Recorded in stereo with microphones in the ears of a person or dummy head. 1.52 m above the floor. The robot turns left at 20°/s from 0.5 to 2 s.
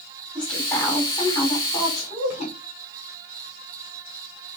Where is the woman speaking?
Straight behind, 5 m; by 2.5 s 150° left, 5 m.